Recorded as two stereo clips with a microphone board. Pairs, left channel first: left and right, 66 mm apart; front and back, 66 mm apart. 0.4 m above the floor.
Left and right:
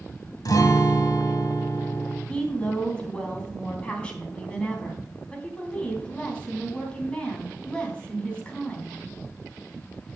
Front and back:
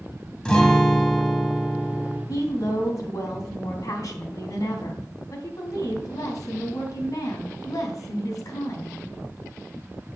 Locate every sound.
0.5 s a guitar: 75° left, 1.7 m
2.3 s a woman speaking: 15° left, 3 m